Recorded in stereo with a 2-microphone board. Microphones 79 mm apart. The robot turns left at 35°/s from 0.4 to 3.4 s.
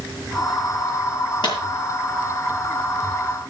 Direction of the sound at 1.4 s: 70° left (ahead or behind).